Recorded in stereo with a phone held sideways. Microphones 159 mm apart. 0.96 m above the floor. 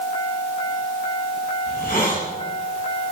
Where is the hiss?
70° left (ahead or behind), 6 m.